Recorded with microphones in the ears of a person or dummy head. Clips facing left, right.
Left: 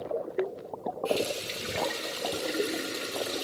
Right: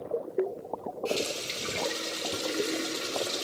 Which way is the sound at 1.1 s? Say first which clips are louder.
Left 2 dB; 15° left (ahead or behind).